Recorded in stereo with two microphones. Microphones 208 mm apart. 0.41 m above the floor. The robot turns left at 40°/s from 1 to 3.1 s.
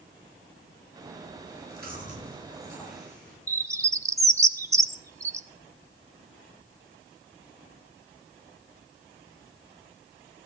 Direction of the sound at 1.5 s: 60° right (ahead or behind).